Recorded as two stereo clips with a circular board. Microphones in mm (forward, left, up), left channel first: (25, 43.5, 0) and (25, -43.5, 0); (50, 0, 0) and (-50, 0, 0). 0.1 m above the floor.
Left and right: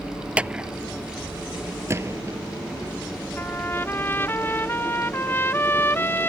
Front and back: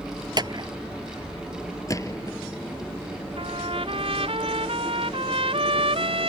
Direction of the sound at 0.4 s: 160° right.